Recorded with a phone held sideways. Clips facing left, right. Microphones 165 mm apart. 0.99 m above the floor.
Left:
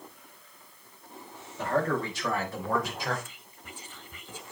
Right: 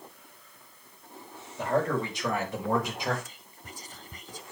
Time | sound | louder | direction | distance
1.6 | a man speaking | right 1 dB | 20° right (ahead or behind) | 4.5 m
3.2 | whispering | even | 40° right (ahead or behind) | 0.5 m